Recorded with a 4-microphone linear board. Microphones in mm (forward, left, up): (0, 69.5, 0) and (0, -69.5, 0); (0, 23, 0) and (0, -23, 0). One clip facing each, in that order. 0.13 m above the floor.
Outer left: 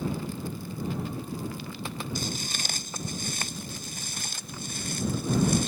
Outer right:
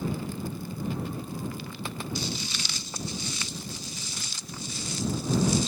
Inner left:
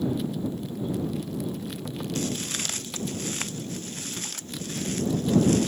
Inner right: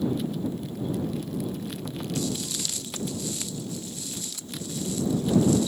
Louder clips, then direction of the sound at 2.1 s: Even, even; 50° left (ahead or behind).